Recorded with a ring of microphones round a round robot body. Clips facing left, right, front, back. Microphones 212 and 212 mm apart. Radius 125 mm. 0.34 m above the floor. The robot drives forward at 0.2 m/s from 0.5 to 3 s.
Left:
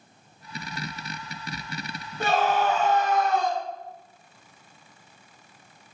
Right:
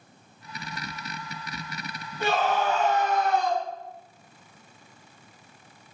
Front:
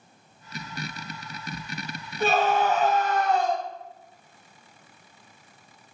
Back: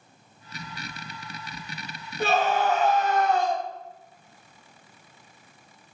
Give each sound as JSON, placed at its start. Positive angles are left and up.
{"t": 2.2, "sound": "a scream", "azimuth_deg": 135, "distance_m": 2.5}